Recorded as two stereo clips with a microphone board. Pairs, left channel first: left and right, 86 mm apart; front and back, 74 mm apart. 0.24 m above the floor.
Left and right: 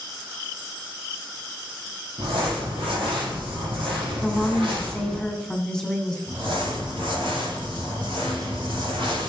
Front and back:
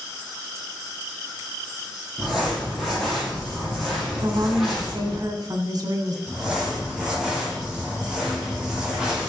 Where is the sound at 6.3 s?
100° right, 6 m.